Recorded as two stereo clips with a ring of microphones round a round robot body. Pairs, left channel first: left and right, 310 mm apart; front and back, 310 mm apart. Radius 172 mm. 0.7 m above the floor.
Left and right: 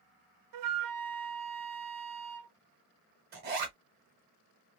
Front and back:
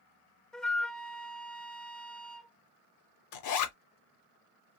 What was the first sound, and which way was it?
A flute, 90° right.